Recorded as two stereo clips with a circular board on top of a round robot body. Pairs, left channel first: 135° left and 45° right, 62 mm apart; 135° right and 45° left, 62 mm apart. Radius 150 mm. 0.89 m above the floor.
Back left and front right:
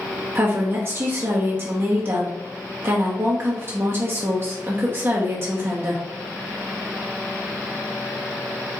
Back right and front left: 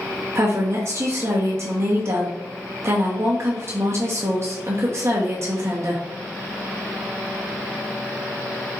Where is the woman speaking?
5° left, 0.9 m.